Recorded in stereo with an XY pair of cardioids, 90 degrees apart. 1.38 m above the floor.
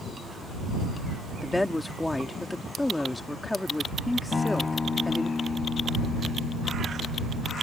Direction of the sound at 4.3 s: 35° left.